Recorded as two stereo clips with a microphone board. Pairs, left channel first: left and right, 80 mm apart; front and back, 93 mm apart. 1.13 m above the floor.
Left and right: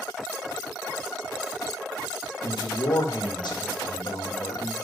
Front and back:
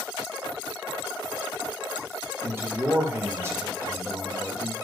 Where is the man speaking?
115° left, 1.1 m.